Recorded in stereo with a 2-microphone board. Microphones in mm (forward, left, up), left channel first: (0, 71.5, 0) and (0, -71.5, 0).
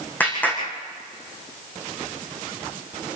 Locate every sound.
0.2 s a clap: 10° left (ahead or behind), 7.5 m